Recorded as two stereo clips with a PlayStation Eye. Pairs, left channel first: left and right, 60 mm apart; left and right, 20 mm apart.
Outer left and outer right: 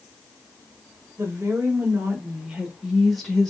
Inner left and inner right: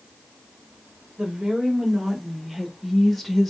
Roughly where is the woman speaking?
Right.